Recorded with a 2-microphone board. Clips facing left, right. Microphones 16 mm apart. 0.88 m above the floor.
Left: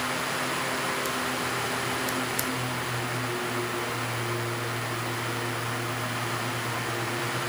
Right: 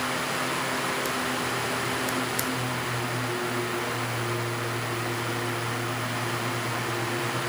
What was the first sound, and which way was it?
Only background noise.